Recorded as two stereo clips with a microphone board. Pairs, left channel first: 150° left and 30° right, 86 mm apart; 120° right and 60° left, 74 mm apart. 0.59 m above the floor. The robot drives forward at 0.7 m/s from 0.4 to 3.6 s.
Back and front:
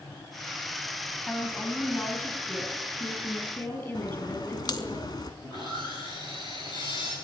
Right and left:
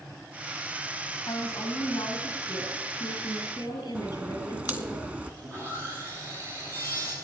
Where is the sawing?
115° left, 7 m.